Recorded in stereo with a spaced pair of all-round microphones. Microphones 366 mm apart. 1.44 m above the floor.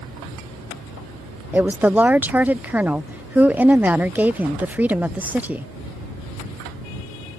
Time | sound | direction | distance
1.5 | a woman speaking | 5° right (ahead or behind) | ?